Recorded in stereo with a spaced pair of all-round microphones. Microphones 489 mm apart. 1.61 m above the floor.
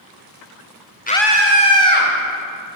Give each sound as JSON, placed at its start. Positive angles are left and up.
{"t": 1.1, "sound": "a scream", "side_deg": 20, "distance_m": 0.6}